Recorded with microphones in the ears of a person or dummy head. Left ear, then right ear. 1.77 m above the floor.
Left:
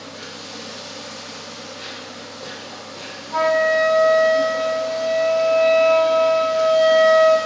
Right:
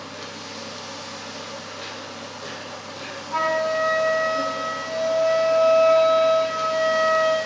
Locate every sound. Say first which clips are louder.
0.0 s an insect: left 1 dB; 20° right (ahead or behind), 2.0 m
3.3 s a flute: left 5 dB; 80° right, 1.7 m